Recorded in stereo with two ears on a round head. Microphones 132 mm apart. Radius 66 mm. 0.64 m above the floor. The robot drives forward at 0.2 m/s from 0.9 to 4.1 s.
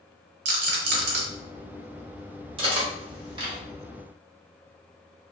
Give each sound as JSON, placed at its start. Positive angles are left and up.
{"t": 0.5, "sound": "a rattle", "side_deg": -80, "distance_m": 1.0}
{"t": 2.6, "sound": "cutlery clinking", "side_deg": -35, "distance_m": 1.3}